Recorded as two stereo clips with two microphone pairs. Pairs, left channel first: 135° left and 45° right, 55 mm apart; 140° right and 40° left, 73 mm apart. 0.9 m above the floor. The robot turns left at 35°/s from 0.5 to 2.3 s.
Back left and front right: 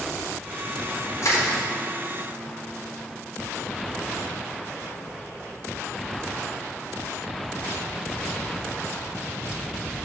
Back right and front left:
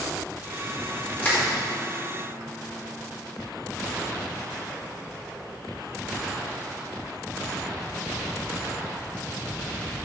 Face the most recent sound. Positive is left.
turn(degrees=120)